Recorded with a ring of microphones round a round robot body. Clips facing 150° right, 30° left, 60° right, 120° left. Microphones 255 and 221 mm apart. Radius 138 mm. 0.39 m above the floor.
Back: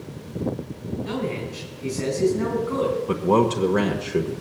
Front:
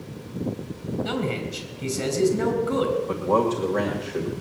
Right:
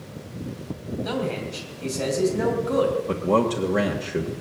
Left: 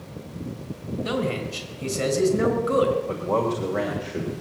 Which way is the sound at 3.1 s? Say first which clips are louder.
Back 3 dB, right 3 dB; 110° right.